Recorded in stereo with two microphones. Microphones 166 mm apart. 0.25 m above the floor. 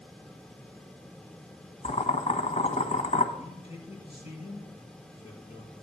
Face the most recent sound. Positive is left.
turn(degrees=40)  # may be behind; listen again after turning